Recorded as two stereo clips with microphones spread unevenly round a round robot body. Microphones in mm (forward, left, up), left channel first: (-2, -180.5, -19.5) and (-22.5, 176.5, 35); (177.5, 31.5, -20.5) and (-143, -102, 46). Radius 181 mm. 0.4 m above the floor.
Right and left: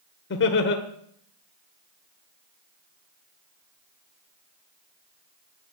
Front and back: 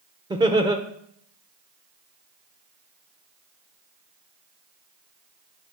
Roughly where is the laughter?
Right.